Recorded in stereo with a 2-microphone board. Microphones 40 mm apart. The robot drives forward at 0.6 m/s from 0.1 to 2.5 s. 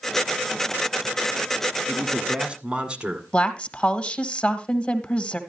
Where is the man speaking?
25° right (ahead or behind), 1.6 m; by 3.2 s 20° right (ahead or behind), 1.9 m.